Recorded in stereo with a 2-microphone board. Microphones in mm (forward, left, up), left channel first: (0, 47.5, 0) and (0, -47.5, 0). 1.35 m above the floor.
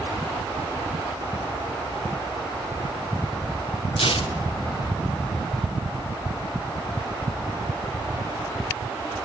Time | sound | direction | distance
4.0 | tearing paper | 80° left | 2.5 m